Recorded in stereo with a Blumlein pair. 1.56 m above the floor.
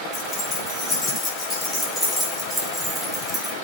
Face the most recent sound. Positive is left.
turn(degrees=-15)